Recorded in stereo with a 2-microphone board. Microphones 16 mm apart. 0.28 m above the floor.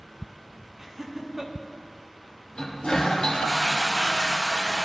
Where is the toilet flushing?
75° left (ahead or behind), 4.5 m.